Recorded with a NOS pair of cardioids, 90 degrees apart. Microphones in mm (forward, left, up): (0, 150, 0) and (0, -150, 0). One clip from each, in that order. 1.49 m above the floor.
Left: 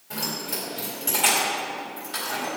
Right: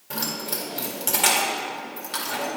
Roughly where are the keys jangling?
Ahead right.